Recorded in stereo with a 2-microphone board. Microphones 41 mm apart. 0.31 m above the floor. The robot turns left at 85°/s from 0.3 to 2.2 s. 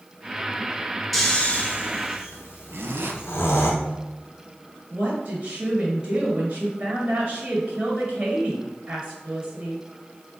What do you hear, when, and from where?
1.1 s snoring: centre (ahead or behind), 0.8 m; by 3.7 s 85° left, 0.8 m
2.7 s a zipper: 75° right (ahead or behind), 0.6 m
4.9 s a woman speaking: 25° right (ahead or behind), 1.6 m